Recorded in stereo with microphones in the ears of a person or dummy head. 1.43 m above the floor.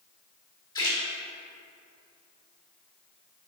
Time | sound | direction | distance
0.8 | a splash | 20° left (ahead or behind) | 2.5 m